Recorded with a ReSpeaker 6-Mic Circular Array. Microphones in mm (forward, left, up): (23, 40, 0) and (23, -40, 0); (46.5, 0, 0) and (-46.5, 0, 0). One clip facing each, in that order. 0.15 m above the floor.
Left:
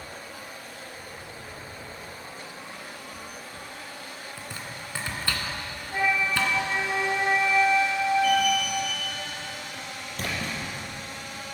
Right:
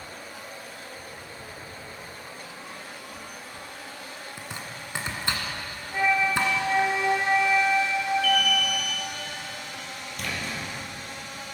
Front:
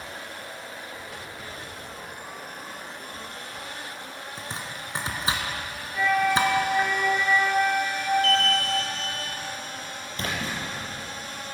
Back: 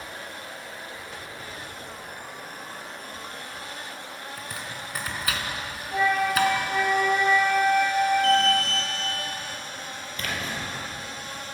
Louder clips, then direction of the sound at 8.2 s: Left 2 dB, back 3 dB; 150° left.